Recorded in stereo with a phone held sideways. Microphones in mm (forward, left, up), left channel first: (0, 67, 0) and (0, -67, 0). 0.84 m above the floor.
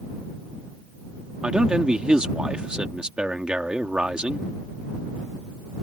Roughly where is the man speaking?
Centre.